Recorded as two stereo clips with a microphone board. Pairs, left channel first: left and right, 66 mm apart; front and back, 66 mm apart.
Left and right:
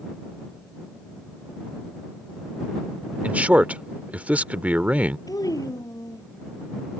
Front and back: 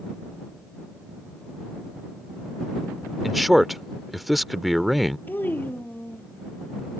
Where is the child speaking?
60° left.